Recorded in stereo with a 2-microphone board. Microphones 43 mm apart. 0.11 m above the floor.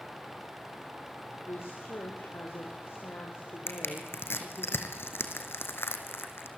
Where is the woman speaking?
70° left (ahead or behind), 5.5 m.